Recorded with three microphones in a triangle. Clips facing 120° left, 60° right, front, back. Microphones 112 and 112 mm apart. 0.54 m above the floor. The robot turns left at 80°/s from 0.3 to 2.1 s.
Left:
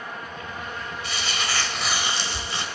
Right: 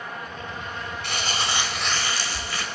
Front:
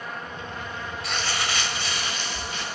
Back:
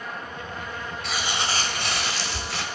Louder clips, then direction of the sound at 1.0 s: Right 3 dB, back 1 dB; 90° right.